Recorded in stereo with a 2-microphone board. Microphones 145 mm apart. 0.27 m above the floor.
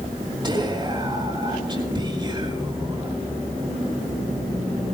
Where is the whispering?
30° right (ahead or behind), 3.5 m.